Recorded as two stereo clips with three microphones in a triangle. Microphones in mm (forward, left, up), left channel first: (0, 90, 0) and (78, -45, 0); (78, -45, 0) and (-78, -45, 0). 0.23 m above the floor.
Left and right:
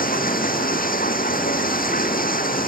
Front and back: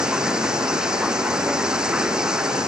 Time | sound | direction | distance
0.0 | running water | 95° left | ?